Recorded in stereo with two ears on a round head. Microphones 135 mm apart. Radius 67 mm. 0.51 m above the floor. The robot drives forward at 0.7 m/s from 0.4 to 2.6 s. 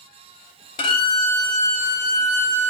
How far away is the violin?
About 1.1 m.